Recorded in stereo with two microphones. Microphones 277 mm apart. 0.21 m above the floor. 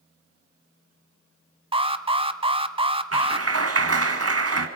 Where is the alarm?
20° right (ahead or behind), 0.9 m.